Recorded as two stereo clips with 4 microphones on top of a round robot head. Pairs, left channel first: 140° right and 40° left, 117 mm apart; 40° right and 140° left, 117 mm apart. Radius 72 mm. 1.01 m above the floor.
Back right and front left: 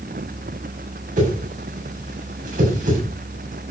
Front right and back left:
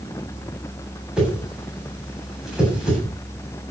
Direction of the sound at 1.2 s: 55° left.